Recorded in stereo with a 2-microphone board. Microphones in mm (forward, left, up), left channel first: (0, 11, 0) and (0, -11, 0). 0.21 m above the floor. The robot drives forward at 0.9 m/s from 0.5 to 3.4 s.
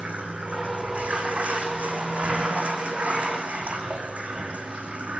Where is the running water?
75° right (ahead or behind), 10 m; by 5.2 s 85° right, 9.5 m.